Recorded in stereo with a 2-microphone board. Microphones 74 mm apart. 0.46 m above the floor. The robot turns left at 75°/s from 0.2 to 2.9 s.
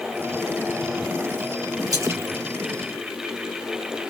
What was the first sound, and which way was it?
A splash, 50° right (ahead or behind).